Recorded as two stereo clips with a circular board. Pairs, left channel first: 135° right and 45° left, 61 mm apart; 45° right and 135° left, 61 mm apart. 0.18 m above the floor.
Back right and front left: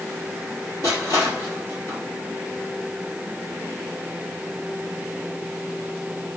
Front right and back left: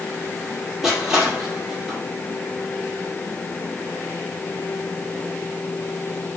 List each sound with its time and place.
0.8 s crushing: 140° right, 5.5 m